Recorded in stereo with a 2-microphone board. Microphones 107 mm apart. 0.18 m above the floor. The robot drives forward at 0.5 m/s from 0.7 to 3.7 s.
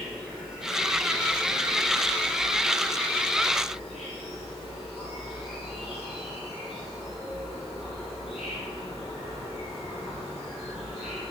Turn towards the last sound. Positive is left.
turn(degrees=-5)  # may be behind; listen again after turning